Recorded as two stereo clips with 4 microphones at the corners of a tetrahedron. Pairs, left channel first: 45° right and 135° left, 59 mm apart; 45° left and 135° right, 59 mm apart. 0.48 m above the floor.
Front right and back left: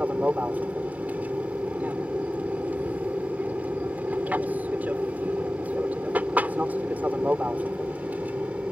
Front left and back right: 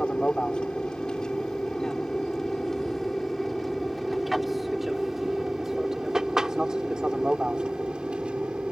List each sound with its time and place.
0.0 s an aircraft: 100° left; by 8.7 s 170° left